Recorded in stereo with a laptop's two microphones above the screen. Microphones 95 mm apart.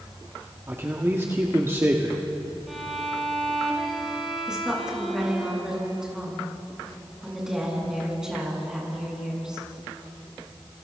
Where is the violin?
Centre (ahead or behind), 5.5 m.